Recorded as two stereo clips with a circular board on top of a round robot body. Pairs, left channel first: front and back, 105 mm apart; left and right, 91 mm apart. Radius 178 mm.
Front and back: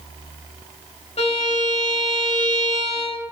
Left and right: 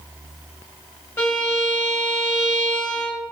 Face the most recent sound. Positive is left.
turn(degrees=30)